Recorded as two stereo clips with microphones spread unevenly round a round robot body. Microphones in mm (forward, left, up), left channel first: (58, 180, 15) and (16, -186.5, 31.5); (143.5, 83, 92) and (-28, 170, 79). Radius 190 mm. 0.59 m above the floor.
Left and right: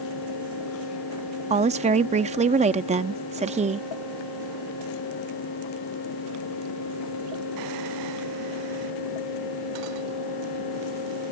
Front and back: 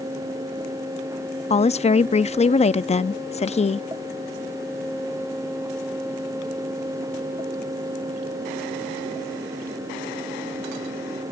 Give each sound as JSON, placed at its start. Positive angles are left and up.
{"t": 1.5, "sound": "a woman speaking", "azimuth_deg": -40}